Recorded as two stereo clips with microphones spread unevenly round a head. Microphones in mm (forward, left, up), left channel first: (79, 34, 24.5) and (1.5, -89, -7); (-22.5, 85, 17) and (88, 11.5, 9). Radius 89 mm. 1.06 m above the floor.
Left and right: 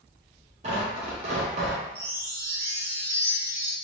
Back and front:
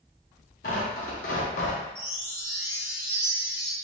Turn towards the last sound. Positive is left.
turn(degrees=-60)